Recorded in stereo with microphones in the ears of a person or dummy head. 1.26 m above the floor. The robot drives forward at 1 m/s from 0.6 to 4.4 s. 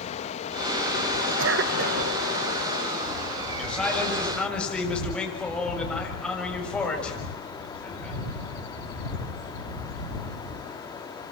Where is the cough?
65° right (ahead or behind), 1.0 m; by 2.1 s 40° right (ahead or behind), 1.5 m.